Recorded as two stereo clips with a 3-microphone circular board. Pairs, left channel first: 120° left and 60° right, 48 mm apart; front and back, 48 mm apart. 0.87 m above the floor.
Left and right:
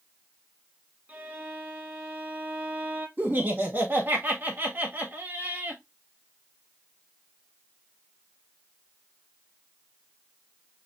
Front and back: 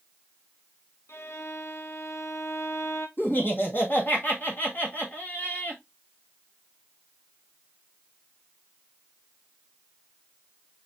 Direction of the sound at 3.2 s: 30° right.